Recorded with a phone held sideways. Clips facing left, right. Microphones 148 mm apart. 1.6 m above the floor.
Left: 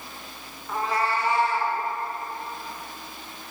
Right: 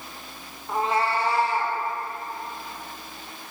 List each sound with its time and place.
0.7 s a cat meowing: 20° right (ahead or behind), 0.9 m; by 1.8 s 40° right (ahead or behind), 1.3 m